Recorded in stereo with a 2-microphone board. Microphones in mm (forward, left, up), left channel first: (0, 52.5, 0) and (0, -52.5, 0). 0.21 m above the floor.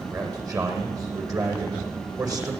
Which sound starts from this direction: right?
A man speaking, at 0.1 s.